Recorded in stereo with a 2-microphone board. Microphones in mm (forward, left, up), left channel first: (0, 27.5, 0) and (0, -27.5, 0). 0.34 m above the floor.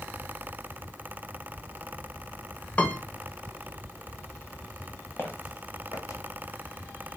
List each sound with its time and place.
2.8 s a piano: 20° left (ahead or behind), 0.6 m
5.2 s footsteps: 40° left (ahead or behind), 0.8 m; by 6.2 s 70° left (ahead or behind), 0.8 m